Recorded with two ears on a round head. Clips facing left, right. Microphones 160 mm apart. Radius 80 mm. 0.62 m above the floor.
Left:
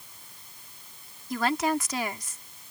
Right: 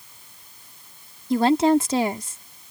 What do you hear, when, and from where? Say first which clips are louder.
1.3 s a woman speaking: right 9 dB; 25° right (ahead or behind)